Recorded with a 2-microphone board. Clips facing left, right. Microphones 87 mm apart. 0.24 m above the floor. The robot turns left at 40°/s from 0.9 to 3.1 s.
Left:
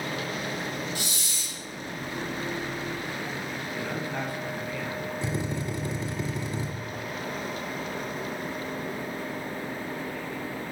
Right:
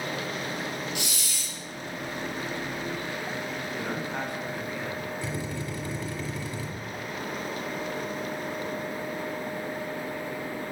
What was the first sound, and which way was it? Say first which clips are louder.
A hiss: even; 35° left (ahead or behind).